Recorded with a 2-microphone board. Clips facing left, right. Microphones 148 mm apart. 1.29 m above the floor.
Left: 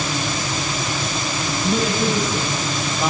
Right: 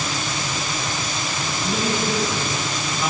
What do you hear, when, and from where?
1.6 s a man speaking: 50° left (ahead or behind), 6.5 m